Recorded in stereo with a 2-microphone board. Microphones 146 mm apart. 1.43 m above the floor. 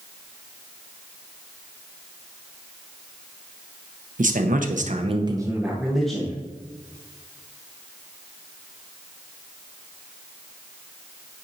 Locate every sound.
4.2 s a man speaking: 70° right (ahead or behind), 1.0 m; by 6.4 s 5° left (ahead or behind), 1.5 m